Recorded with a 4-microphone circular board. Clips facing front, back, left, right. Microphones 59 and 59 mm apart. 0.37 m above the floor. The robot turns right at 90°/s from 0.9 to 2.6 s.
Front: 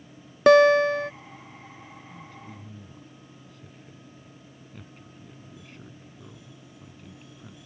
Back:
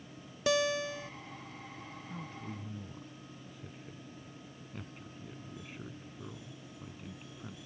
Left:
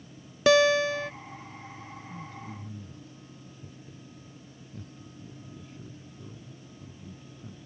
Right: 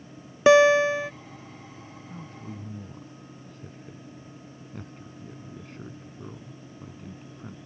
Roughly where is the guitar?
Ahead right.